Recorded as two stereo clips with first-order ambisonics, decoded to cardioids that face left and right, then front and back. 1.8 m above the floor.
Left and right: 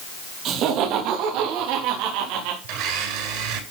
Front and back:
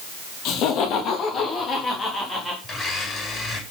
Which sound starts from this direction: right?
A blender, at 2.6 s.